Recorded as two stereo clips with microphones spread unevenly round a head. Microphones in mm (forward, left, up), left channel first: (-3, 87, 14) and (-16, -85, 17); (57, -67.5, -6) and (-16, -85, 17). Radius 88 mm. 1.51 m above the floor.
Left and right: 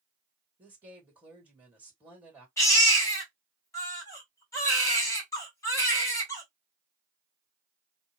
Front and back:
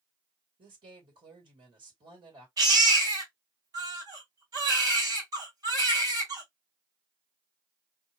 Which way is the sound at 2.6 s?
160° left.